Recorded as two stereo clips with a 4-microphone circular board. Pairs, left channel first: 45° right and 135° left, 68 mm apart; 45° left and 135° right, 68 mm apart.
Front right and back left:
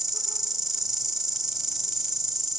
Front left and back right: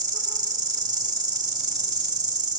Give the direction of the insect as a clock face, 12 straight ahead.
5 o'clock.